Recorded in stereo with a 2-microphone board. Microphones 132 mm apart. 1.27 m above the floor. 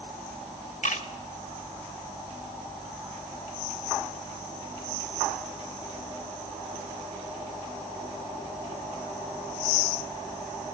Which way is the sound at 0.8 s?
75° left (ahead or behind).